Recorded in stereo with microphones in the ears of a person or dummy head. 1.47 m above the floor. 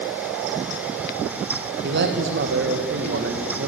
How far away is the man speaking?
About 2.0 m.